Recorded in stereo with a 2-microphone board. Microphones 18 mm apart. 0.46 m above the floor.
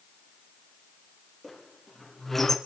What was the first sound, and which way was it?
A squeak, 20° left (ahead or behind).